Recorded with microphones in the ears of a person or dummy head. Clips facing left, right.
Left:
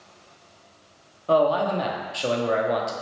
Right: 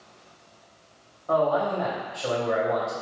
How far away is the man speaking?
About 0.7 m.